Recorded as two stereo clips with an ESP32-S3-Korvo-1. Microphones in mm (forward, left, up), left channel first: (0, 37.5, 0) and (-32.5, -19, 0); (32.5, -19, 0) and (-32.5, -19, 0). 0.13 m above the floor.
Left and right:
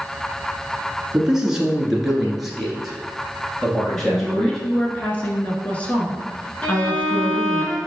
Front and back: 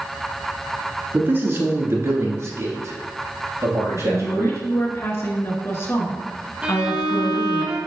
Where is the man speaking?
170° left, 1.3 m; by 4.6 s 140° left, 3 m.